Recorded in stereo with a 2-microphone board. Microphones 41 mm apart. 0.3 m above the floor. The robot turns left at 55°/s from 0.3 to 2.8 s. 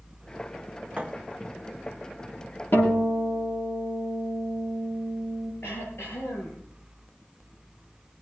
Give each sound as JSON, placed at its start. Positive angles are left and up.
{"t": 1.0, "sound": "a thud", "side_deg": -25, "distance_m": 3.0}
{"t": 2.7, "sound": "a guitar", "side_deg": 60, "distance_m": 7.5}
{"t": 5.6, "sound": "throat clearing", "side_deg": 75, "distance_m": 5.5}